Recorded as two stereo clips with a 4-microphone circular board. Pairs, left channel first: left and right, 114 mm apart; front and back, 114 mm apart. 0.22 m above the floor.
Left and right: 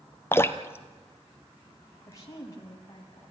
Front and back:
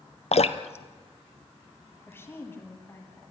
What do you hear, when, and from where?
0.3 s dripping: 20° left, 0.9 m
2.1 s a woman speaking: 60° left, 1.9 m